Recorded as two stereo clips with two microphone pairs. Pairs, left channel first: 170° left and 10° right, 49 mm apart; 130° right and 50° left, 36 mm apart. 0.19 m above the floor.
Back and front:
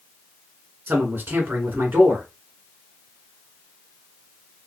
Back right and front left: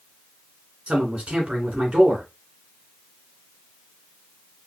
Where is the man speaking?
15° left, 1.6 m.